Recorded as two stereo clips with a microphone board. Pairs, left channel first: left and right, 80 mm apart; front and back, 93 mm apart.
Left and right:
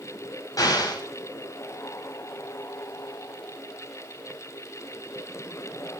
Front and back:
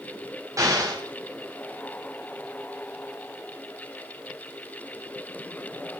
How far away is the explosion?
About 5 m.